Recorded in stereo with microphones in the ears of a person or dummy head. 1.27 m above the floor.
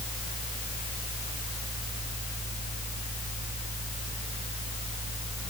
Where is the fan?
30° right (ahead or behind), 2.5 m.